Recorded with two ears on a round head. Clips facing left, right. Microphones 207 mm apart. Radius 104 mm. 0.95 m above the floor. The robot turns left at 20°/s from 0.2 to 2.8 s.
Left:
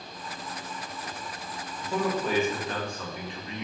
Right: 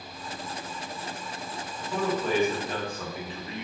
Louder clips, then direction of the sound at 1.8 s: Even; 15° left (ahead or behind).